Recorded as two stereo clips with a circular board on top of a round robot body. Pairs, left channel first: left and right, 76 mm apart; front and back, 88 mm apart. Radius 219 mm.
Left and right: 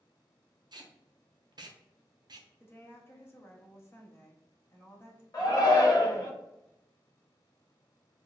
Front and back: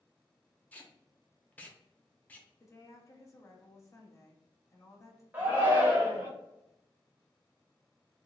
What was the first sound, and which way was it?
Tape being pulled, 70° right.